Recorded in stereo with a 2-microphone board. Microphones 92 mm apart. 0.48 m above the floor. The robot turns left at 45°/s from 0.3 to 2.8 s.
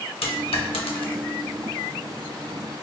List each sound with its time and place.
0.2 s a dropped coin: 80° left, 0.6 m; by 1.2 s 60° left (ahead or behind), 0.6 m